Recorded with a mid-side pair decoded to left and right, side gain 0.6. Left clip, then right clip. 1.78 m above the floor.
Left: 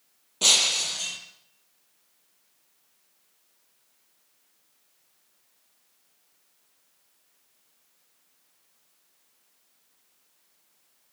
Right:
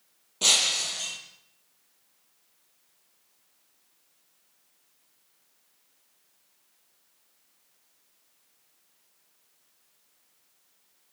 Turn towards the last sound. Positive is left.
turn(degrees=10)